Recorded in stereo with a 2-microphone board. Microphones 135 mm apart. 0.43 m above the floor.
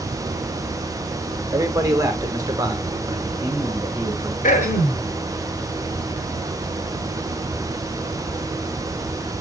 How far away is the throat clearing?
About 2.5 m.